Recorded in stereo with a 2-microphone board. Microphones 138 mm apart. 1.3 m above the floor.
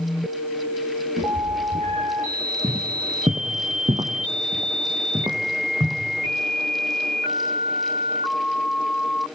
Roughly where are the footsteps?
Right.